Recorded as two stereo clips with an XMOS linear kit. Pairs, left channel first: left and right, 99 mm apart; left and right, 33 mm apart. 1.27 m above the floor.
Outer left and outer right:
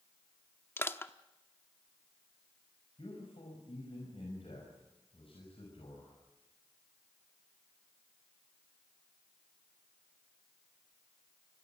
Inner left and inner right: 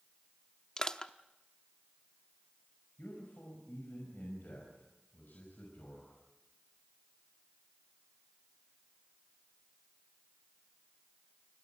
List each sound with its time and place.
0.8 s crushing: 25° left (ahead or behind), 0.9 m
3.0 s a man speaking: 70° left (ahead or behind), 5.5 m